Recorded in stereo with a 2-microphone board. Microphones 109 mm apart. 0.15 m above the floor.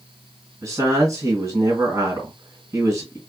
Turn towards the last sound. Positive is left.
turn(degrees=-30)  # may be behind; listen again after turning